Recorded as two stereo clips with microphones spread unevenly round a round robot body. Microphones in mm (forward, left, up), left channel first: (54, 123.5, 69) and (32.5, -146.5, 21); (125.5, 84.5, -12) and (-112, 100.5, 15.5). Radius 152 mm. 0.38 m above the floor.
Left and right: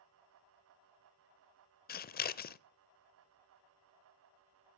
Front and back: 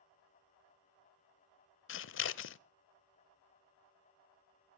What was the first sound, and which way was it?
Scissors, 25° left.